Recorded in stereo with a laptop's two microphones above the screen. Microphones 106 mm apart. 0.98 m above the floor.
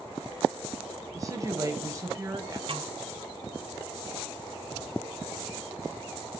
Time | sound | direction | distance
1.1 | a woman speaking | 30° right (ahead or behind) | 4 m
2.7 | a snare drum | 55° right (ahead or behind) | 2.5 m